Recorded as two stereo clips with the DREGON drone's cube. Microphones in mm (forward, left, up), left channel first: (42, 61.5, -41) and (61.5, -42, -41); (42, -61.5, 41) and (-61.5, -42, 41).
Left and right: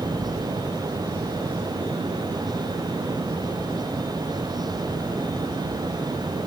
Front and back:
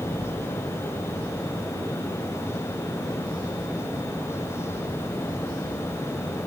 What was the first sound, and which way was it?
Only background noise.